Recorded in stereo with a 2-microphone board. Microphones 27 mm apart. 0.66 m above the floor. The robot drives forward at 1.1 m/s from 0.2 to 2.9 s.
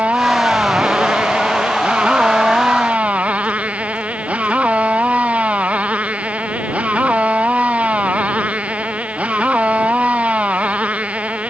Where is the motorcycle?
60° right (ahead or behind).